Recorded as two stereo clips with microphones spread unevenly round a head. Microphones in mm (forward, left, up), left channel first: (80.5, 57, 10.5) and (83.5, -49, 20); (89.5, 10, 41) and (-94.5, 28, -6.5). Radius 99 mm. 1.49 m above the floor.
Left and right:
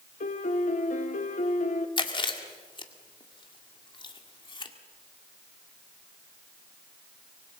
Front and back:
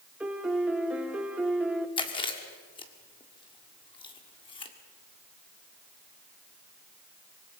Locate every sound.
0.2 s a piano: 90° left, 1.1 m
2.0 s chewing: 50° left, 2.0 m